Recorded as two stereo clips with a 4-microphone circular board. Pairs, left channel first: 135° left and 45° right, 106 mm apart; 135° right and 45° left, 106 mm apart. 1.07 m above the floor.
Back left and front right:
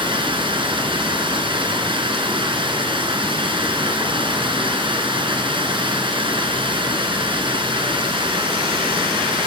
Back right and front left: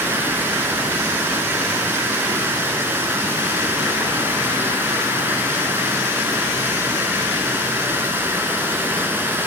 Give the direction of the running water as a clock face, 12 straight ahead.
1 o'clock.